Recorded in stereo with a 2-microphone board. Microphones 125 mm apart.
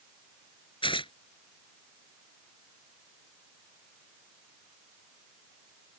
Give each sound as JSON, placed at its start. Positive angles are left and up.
{"t": 0.8, "sound": "tearing paper", "side_deg": 45}